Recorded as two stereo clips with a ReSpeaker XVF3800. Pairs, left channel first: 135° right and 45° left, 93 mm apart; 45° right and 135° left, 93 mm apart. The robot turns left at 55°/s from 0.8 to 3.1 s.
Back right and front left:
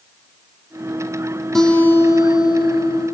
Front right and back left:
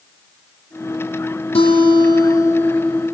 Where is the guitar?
50° right, 5 m; by 3.1 s 135° right, 5 m.